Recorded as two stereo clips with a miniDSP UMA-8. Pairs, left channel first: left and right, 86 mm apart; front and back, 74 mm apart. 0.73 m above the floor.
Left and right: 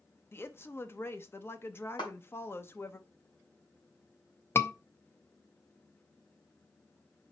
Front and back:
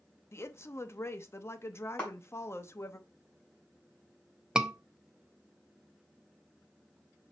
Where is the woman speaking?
40° left, 0.7 m.